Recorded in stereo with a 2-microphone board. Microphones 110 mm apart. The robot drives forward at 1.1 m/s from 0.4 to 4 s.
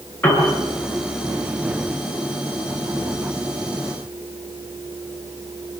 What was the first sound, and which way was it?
A piano, 20° left (ahead or behind).